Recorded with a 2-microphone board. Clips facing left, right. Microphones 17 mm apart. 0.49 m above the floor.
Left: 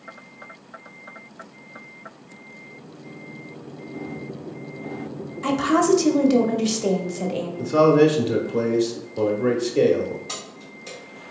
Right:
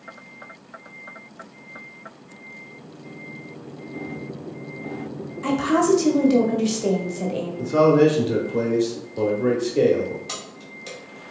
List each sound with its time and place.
5.4 s a woman speaking: 20° left (ahead or behind), 0.7 m
7.6 s a man speaking: 20° left (ahead or behind), 0.8 m
10.3 s keys jangling: 50° right (ahead or behind), 1.8 m